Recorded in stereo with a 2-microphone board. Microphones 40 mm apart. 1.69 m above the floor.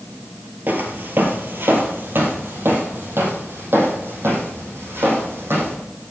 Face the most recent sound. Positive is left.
turn(degrees=-65)  # may be behind; listen again after turning